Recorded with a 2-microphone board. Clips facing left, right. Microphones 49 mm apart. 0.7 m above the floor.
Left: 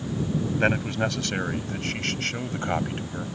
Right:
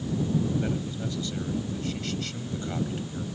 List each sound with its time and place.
0.6 s a man speaking: 80° left; by 3.3 s 40° left (ahead or behind)